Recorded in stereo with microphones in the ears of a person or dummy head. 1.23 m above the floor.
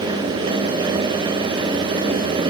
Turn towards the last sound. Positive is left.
No sound to turn to.